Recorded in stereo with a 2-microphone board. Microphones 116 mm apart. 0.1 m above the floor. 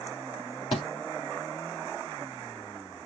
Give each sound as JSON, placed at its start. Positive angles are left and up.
{"t": 0.7, "sound": "a thud", "side_deg": 50, "distance_m": 3.5}